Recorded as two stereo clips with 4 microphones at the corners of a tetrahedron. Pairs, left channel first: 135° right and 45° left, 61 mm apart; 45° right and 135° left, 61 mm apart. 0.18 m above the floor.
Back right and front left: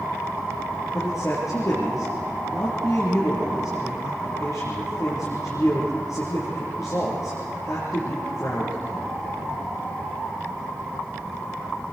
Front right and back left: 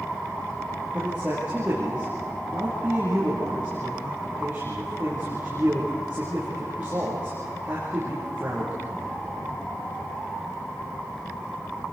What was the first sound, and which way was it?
A man speaking, 165° right.